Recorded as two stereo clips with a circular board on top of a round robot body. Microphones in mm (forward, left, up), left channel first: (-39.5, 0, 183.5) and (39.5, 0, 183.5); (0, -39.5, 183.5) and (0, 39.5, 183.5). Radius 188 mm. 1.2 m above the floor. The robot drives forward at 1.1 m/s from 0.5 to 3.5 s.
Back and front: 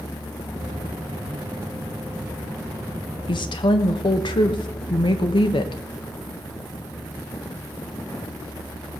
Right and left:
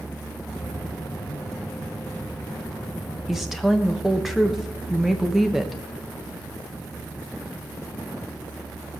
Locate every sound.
3.3 s a woman speaking: 175° left, 1.2 m